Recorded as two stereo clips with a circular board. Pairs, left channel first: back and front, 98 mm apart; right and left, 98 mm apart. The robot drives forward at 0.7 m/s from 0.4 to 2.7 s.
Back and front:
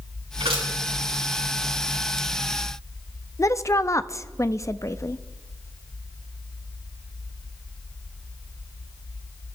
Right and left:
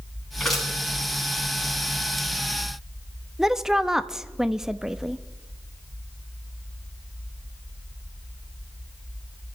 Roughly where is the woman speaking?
Behind.